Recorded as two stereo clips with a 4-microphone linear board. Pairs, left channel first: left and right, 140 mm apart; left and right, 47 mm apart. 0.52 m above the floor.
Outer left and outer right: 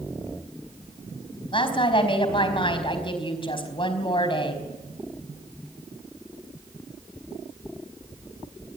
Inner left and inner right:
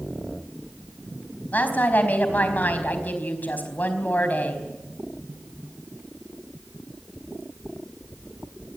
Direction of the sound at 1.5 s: 40° left (ahead or behind).